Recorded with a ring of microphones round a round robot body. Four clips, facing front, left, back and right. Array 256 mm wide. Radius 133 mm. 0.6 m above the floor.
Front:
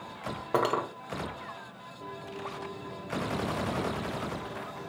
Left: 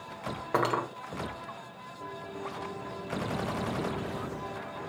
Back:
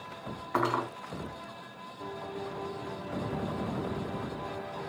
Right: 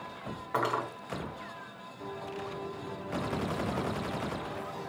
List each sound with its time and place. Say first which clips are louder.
0.5 s cutlery clinking: left 2 dB, front 1 dB; 35° left, 2.0 m